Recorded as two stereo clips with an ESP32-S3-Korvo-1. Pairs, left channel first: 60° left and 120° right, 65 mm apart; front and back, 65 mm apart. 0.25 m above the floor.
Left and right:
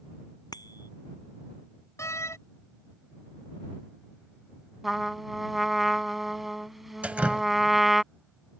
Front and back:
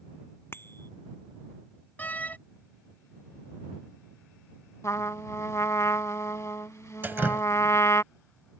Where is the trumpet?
30° right.